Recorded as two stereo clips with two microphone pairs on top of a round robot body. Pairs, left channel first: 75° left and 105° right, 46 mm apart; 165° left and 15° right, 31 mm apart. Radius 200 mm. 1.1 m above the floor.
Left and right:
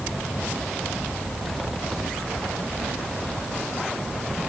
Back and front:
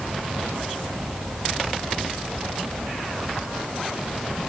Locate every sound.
Only background noise.